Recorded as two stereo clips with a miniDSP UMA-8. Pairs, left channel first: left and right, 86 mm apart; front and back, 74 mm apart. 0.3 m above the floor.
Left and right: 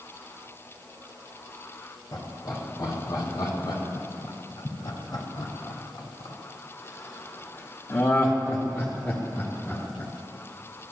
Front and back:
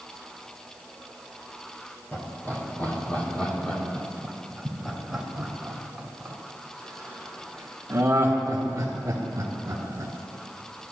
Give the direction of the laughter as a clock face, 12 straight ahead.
10 o'clock.